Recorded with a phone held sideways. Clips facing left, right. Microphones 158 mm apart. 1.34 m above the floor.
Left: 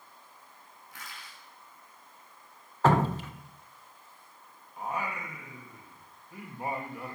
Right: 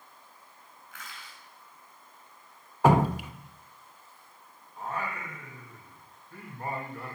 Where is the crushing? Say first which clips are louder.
Even; 35° left (ahead or behind), 8.5 m.